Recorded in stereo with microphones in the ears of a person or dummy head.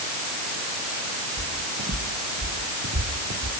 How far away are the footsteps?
About 3 m.